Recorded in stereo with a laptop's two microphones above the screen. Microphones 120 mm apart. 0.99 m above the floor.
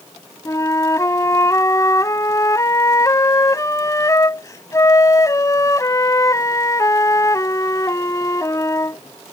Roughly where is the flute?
Left.